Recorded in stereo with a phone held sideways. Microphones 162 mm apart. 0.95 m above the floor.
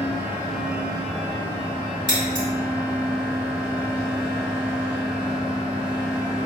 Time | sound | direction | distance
0.0 | a fan | 15° right (ahead or behind) | 1.5 m
2.1 | scissors | 30° right (ahead or behind) | 1.8 m